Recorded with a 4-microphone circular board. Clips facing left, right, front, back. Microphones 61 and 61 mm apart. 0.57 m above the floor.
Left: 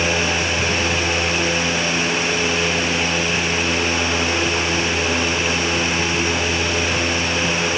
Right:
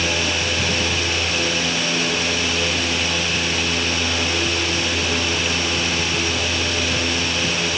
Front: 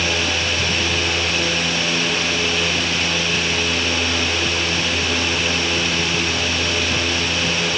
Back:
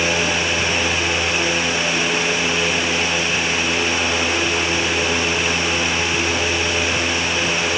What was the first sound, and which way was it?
Only background noise.